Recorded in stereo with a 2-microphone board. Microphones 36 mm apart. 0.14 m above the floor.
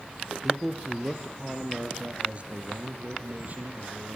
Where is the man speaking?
5° right (ahead or behind), 4.5 m; by 4.2 s 50° right (ahead or behind), 6.5 m.